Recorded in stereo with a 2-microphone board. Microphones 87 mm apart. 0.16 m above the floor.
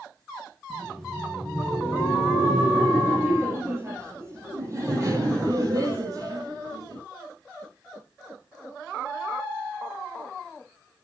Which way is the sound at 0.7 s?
10° right (ahead or behind).